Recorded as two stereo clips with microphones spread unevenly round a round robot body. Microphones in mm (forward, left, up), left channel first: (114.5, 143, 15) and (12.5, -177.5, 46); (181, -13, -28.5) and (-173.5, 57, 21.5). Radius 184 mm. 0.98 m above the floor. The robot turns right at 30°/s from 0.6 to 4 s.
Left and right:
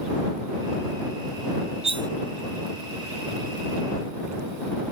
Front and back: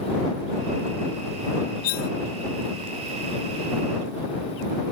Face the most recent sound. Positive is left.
turn(degrees=30)